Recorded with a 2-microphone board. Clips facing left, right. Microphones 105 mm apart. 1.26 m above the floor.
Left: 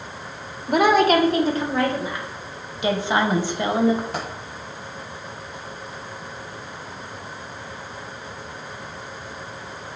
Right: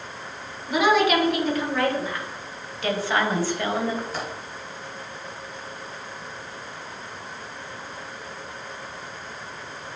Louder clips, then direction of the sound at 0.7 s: Left 3 dB; 55° left (ahead or behind).